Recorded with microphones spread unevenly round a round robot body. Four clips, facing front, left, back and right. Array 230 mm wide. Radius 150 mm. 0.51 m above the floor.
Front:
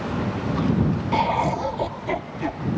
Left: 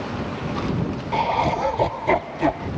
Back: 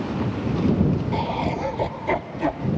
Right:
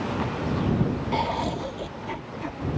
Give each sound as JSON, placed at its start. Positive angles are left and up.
{"t": 1.1, "sound": "laughter", "azimuth_deg": 20}